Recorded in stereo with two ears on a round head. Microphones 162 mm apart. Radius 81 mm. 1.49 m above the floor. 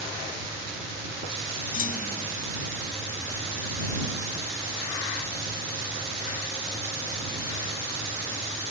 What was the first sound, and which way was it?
A clunk, 45° left (ahead or behind).